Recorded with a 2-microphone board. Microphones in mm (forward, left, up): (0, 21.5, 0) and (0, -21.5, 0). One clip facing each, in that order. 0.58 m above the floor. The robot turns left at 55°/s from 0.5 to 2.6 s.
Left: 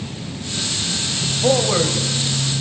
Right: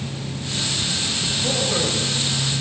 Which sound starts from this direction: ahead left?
A man speaking, at 1.4 s.